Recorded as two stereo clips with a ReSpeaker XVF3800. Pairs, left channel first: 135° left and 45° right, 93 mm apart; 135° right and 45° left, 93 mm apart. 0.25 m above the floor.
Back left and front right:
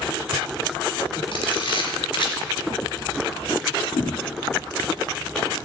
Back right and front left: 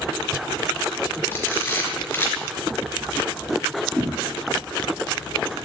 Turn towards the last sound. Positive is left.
turn(degrees=130)